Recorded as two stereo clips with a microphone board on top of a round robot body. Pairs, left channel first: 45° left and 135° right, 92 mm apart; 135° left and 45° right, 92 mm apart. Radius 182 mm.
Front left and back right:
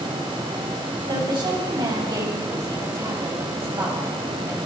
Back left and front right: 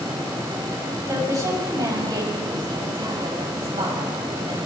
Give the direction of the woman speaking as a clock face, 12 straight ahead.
3 o'clock.